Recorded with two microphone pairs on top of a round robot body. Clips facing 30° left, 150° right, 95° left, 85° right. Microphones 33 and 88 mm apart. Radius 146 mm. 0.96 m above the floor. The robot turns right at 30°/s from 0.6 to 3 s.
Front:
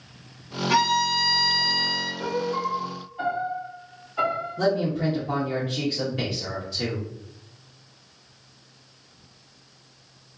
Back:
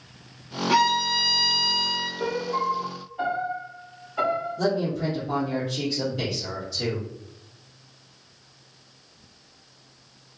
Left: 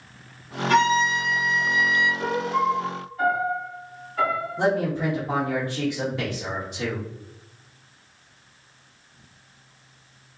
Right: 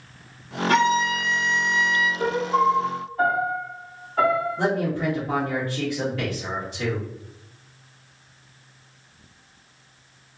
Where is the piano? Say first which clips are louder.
Back 1 dB, right 3 dB; 80° right, 0.8 m; by 4.6 s 60° right, 0.8 m.